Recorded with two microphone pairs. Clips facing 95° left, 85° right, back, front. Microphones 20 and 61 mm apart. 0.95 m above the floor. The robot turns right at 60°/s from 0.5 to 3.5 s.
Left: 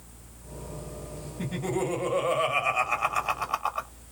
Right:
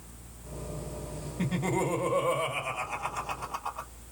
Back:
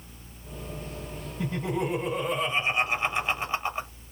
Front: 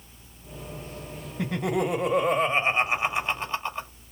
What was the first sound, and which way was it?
Laughter, 20° right.